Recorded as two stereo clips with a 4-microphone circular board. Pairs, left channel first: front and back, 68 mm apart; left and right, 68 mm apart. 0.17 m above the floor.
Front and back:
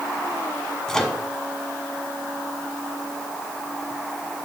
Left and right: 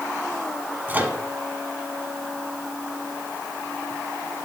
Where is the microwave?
70° right, 1.3 m.